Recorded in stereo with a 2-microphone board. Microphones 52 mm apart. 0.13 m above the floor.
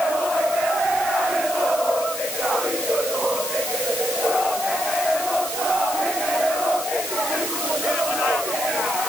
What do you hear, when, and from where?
Only background noise.